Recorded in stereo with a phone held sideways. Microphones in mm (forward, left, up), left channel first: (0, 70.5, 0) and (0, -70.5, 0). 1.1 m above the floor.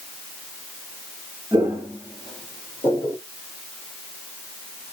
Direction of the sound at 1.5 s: 20° right (ahead or behind).